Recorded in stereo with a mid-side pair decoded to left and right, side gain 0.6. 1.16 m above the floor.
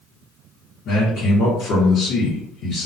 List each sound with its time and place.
0.8 s a man speaking: 60° left, 1.0 m